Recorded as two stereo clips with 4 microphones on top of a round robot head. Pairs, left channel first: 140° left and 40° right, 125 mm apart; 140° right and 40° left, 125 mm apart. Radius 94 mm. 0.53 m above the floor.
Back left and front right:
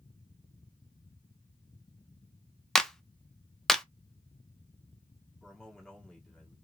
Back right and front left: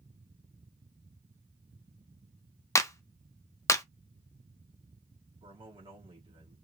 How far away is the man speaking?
About 1.6 m.